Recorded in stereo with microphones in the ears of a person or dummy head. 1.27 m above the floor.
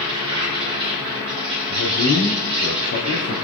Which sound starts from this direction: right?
An insect, at 0.0 s.